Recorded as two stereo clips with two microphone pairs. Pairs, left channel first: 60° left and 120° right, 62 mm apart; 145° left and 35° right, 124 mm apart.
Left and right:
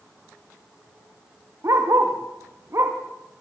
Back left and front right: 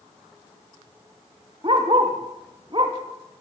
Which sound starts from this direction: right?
A dog barking, at 1.6 s.